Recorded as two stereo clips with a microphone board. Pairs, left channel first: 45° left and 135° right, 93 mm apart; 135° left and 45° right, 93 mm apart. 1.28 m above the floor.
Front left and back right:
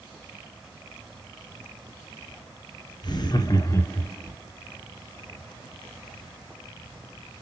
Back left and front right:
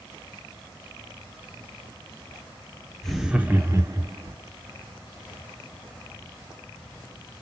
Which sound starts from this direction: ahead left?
Laughter, at 3.0 s.